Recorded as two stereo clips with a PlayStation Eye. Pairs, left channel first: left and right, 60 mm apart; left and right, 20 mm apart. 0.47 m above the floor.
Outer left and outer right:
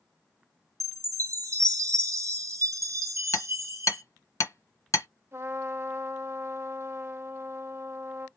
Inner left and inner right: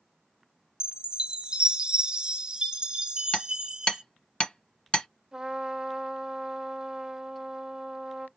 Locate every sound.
0.8 s a chime: 60° right (ahead or behind), 1.0 m
3.3 s hammering: 65° left (ahead or behind), 0.9 m
5.3 s a trumpet: 35° right (ahead or behind), 1.2 m